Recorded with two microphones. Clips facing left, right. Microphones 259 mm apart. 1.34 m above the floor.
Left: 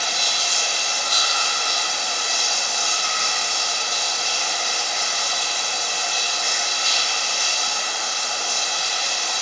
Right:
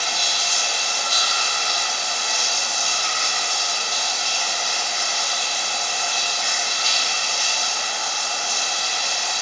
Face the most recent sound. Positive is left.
turn(degrees=55)  # may be behind; listen again after turning